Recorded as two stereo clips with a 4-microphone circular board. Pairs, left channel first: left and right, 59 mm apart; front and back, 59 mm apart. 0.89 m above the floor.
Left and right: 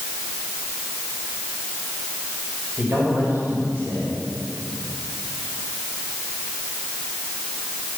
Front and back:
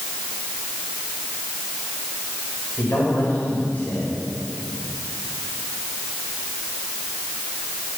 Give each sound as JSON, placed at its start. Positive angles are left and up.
{"t": 2.8, "sound": "a man speaking", "azimuth_deg": -50, "distance_m": 5.0}